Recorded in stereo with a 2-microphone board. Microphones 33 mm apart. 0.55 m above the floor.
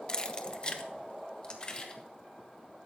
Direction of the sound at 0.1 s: 25° left (ahead or behind).